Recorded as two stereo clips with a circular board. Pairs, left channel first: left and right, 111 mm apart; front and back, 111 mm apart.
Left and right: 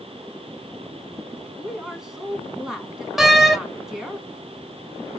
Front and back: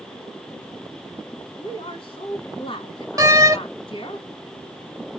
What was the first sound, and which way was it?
A woman speaking, 5° right.